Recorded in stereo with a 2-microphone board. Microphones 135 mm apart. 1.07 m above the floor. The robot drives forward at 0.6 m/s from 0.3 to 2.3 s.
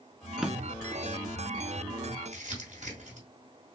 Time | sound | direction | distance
0.4 | a drawer | 5° right (ahead or behind) | 0.5 m
2.3 | crumpling | 60° right (ahead or behind) | 1.5 m